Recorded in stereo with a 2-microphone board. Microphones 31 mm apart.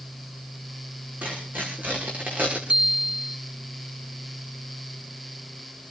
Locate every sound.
1.2 s tearing paper: 70° right (ahead or behind), 8.5 m
2.7 s a bicycle bell: 35° right (ahead or behind), 2.5 m